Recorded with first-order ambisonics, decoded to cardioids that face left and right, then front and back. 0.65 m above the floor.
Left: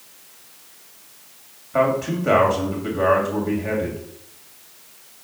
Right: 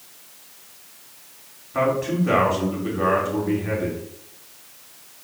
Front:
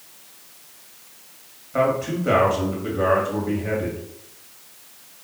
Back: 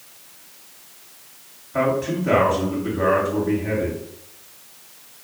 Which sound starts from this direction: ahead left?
A man speaking, at 1.7 s.